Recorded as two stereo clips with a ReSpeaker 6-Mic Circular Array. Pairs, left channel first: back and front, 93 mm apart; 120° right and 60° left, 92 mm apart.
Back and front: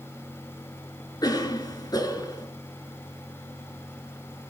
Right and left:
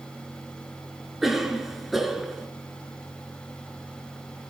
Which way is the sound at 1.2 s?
145° left.